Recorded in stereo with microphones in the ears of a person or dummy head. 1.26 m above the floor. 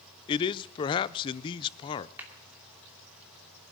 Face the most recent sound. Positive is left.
turn(degrees=-15)  # may be behind; listen again after turning